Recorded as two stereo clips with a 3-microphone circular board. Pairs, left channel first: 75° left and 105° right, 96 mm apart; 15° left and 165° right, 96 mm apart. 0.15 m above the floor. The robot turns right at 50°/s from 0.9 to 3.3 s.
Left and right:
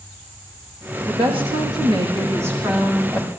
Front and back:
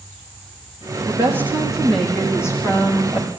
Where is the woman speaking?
115° right, 8.5 m; by 3.3 s 5° right, 8.5 m.